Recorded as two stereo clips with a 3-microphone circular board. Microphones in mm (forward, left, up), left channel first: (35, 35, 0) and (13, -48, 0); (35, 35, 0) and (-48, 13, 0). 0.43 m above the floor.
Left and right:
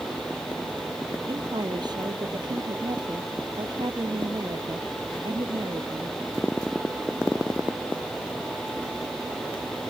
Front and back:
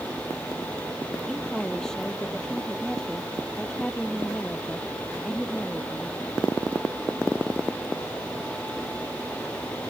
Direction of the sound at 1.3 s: 70° right.